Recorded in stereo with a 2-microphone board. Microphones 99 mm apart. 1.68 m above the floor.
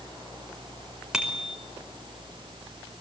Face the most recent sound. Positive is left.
turn(degrees=-5)  # may be behind; listen again after turning